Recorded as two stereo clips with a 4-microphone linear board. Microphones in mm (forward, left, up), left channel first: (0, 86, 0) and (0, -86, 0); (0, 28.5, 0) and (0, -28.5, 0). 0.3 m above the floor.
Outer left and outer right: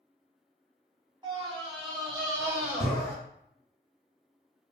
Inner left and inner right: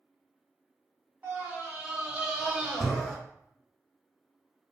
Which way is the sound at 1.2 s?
30° right (ahead or behind).